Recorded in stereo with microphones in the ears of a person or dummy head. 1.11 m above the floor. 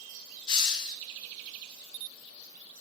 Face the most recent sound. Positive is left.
turn(degrees=25)  # may be behind; listen again after turning